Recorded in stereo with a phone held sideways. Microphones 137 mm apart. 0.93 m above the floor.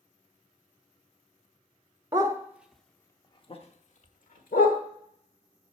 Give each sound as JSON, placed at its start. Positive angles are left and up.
{"t": 2.1, "sound": "a dog barking", "side_deg": -25, "distance_m": 1.0}